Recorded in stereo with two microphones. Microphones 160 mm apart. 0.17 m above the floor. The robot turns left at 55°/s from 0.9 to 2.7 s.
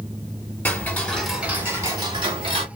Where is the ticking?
20° left, 0.9 m; by 2.7 s 75° right, 0.9 m.